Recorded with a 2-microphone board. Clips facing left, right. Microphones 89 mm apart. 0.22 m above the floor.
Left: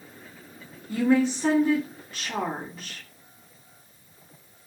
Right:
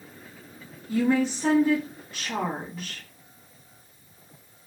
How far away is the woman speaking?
About 1.9 m.